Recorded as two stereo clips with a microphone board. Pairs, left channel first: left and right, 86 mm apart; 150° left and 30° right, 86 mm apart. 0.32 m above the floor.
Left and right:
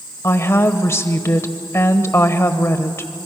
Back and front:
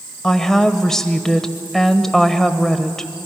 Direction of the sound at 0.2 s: 70° left.